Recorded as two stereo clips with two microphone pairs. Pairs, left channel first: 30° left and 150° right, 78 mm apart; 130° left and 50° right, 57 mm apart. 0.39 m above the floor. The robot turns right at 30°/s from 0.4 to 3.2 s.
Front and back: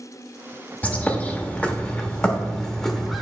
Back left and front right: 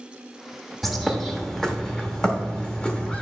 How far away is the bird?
About 0.9 m.